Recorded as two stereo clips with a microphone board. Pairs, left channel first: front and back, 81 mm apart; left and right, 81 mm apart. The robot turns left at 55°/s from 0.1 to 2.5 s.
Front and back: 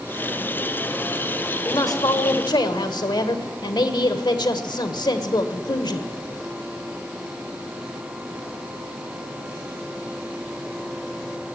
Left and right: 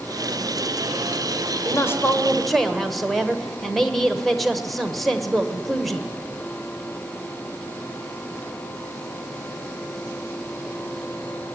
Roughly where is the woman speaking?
Ahead left.